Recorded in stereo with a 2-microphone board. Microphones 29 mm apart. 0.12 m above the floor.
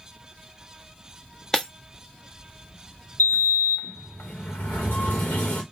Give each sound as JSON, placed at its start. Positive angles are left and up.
{"t": 1.5, "sound": "breaking glass", "side_deg": 15, "distance_m": 1.3}
{"t": 3.2, "sound": "a sliding door", "side_deg": 80, "distance_m": 2.0}